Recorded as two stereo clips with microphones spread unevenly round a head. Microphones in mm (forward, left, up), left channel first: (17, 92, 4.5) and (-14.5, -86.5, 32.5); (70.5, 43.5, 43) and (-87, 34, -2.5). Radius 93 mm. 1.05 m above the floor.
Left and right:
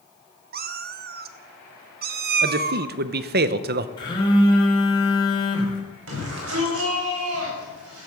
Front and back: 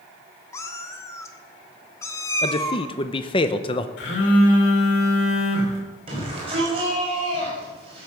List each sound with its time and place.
0.5 s a cat meowing: 65° right, 0.6 m
2.4 s a man speaking: 65° right, 0.7 m
4.0 s a phone buzzing: 10° left, 3 m
6.1 s a shout: 115° right, 5 m